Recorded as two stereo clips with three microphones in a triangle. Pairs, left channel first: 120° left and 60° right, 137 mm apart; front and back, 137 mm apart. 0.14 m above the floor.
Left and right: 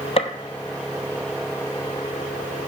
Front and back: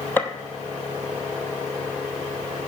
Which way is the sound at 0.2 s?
75° left.